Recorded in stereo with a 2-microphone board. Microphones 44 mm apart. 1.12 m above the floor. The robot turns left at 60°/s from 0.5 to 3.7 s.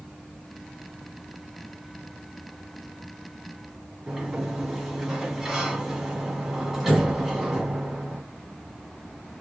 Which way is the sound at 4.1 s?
10° right (ahead or behind).